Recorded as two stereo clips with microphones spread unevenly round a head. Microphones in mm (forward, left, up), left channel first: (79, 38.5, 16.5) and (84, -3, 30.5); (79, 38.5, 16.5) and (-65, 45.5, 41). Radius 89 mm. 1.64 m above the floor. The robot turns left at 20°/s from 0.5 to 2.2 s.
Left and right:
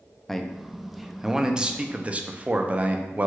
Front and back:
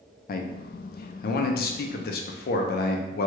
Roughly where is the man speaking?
Ahead.